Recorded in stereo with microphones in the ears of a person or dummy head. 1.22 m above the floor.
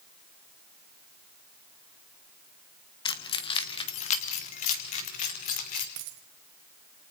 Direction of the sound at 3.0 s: 25° left (ahead or behind).